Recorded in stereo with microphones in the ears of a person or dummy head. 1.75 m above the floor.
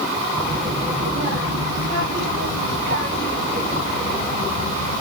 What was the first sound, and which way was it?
A child speaking, 35° right (ahead or behind).